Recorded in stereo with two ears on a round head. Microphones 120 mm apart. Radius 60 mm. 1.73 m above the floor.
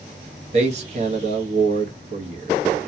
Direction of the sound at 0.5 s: 50° right (ahead or behind).